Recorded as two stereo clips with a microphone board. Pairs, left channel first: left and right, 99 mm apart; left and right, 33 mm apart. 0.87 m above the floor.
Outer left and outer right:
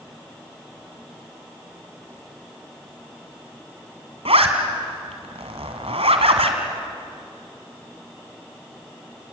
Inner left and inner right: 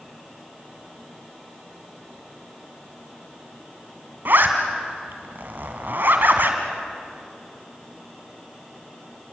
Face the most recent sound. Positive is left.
turn(degrees=-70)  # may be behind; listen again after turning